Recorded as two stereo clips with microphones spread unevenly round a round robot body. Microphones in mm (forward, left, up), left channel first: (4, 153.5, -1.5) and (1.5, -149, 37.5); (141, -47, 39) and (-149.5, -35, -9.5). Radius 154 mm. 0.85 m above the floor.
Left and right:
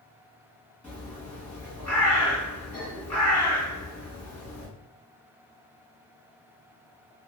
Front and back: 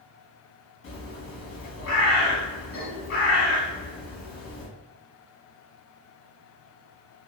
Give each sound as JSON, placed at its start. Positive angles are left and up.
{"t": 0.8, "sound": "a bird", "azimuth_deg": 20, "distance_m": 1.0}